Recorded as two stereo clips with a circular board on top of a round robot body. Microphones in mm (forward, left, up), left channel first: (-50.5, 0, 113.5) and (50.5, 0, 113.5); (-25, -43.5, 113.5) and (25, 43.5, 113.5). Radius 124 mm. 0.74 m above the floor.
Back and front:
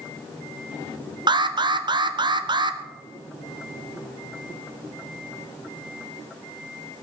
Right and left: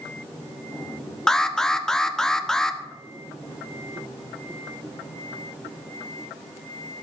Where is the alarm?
35° right, 1.2 m.